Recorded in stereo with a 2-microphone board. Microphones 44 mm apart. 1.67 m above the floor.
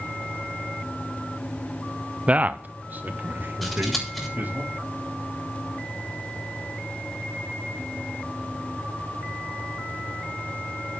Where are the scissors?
5° left (ahead or behind), 7 m.